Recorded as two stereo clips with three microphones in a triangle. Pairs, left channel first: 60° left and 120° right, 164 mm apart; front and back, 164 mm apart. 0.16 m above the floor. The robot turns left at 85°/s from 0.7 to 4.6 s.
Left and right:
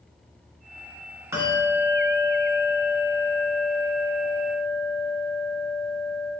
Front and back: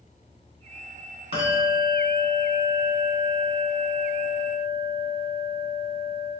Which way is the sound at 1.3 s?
Straight behind.